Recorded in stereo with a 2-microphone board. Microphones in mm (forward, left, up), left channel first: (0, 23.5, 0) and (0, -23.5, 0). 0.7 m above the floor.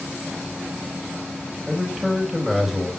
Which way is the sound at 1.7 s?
5° right (ahead or behind).